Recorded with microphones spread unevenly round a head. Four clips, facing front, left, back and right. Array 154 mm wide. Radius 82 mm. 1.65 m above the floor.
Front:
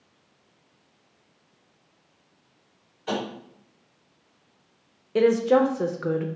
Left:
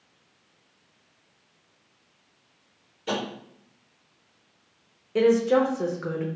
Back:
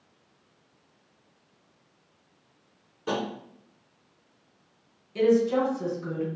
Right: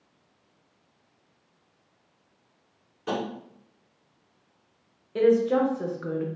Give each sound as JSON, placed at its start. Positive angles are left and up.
{"t": 3.1, "sound": "tapping", "azimuth_deg": -145, "distance_m": 1.9}
{"t": 5.2, "sound": "a woman speaking", "azimuth_deg": 25, "distance_m": 0.5}